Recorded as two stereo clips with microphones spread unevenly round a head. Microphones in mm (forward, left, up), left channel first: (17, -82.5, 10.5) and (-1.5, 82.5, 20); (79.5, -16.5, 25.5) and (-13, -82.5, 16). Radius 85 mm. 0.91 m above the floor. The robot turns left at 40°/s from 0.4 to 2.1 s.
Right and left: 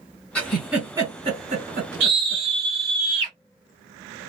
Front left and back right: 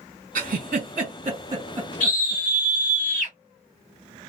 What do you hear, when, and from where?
0.3 s a giggle: 165° right, 2 m; by 2.4 s 125° left, 2 m
2.0 s a scream: 65° left, 1.6 m; by 3.3 s 60° left, 1.6 m